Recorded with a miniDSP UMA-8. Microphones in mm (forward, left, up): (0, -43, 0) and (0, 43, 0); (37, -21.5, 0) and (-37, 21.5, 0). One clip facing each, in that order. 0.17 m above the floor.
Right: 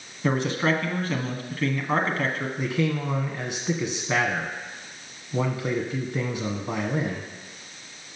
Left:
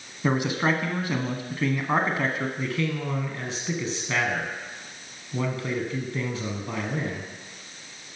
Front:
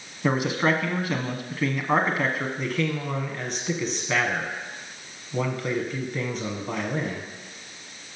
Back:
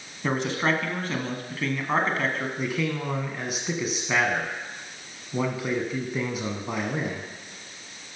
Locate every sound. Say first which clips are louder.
0.2 s a man speaking: even, front 2 dB; 35° left, 1.1 m
2.6 s a man speaking: right 2 dB, front 1 dB; 140° right, 1.1 m